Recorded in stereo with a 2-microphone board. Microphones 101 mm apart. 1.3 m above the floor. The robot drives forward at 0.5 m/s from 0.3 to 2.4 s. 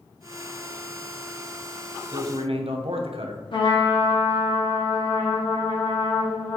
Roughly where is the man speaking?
Right.